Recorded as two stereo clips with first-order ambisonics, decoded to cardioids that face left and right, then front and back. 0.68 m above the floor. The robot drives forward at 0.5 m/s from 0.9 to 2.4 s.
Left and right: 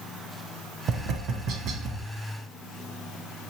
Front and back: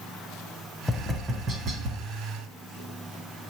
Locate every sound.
0.9 s tapping: 85° right, 0.6 m; by 2.0 s 140° right, 0.8 m